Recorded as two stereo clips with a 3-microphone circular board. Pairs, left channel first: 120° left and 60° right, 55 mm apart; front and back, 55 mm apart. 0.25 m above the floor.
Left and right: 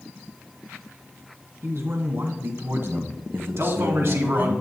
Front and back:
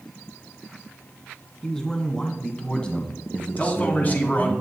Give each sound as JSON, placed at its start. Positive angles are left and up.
{"t": 1.6, "sound": "a man speaking", "azimuth_deg": -75, "distance_m": 2.5}
{"t": 3.6, "sound": "a man speaking", "azimuth_deg": -50, "distance_m": 2.5}